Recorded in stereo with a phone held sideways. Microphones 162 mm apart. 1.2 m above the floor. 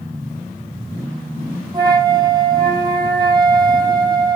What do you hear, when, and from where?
1.7 s a flute: 25° right (ahead or behind), 5.5 m